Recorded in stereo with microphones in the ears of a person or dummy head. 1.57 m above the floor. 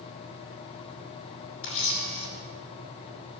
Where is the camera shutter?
30° left (ahead or behind), 2.5 m.